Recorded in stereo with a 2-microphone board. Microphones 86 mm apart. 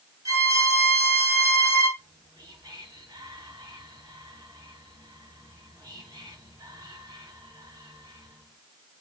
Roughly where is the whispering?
Right.